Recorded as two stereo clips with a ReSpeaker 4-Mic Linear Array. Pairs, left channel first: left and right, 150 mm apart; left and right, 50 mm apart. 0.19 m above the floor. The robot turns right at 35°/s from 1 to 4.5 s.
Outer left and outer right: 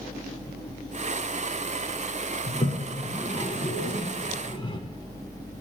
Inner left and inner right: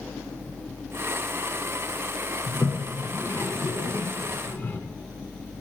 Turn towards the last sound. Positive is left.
turn(degrees=35)  # may be behind; listen again after turning